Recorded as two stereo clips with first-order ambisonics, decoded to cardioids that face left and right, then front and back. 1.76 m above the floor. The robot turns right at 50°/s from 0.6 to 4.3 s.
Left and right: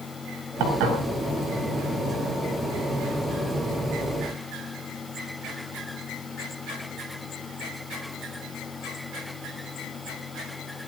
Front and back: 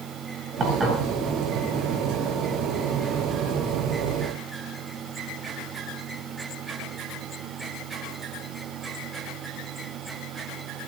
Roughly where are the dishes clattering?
Behind right.